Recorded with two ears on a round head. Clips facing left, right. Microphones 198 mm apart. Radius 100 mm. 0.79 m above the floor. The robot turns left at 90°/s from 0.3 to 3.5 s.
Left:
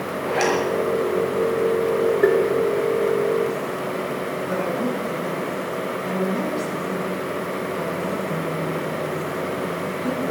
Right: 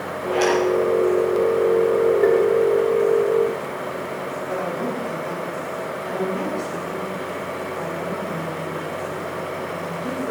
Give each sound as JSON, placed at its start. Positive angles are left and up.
{"t": 0.2, "sound": "a zipper", "side_deg": 70, "distance_m": 5.0}
{"t": 2.2, "sound": "tapping", "side_deg": 10, "distance_m": 2.0}
{"t": 4.5, "sound": "a woman speaking", "side_deg": 30, "distance_m": 7.0}